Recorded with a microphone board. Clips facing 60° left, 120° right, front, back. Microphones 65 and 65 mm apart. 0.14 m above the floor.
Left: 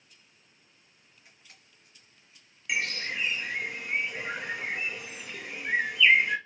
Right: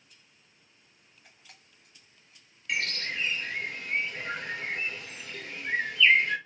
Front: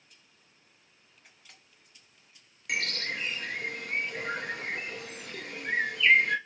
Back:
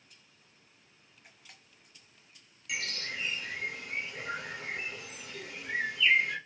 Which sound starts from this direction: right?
A camera shutter, at 1.2 s.